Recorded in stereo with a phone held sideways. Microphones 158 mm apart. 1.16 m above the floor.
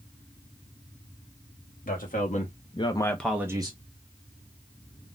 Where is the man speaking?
60° left (ahead or behind), 1.3 m; by 3.8 s 35° right (ahead or behind), 0.8 m.